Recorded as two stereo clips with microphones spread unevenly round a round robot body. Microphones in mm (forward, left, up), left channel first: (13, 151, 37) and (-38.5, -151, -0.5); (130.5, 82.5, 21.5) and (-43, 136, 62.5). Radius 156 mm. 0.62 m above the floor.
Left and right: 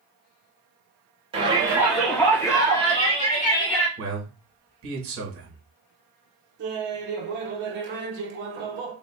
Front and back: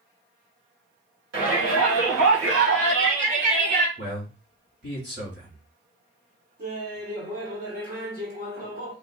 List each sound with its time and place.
1.3 s a shout: 170° right, 1.9 m; by 3.9 s 140° left, 2.5 m
4.0 s a man speaking: 140° right, 2 m
6.6 s laughter: 145° right, 1.6 m